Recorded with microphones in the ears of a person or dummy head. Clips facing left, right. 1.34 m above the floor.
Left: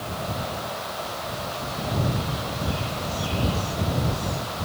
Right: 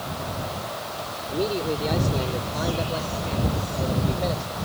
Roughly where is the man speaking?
Right.